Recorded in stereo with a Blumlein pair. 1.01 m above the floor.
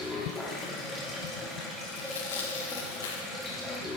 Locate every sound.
0.0 s running water: 10° left, 1.4 m
1.9 s tearing paper: 60° left, 0.8 m